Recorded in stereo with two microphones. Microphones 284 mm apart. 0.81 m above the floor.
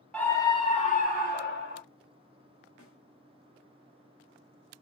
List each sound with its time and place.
0.1 s a scream: 5° left (ahead or behind), 1.4 m; by 1.8 s 40° left (ahead or behind), 2.5 m
2.8 s a snare drum: 50° right (ahead or behind), 1.7 m